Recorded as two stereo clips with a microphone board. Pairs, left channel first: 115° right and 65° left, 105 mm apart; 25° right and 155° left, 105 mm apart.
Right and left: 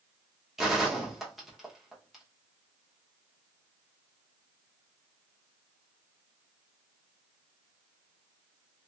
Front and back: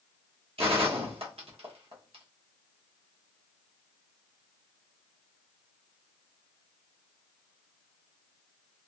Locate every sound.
0.6 s a gunshot: 155° left, 0.8 m